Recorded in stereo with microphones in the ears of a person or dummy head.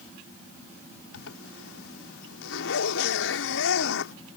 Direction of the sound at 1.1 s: 75° left (ahead or behind).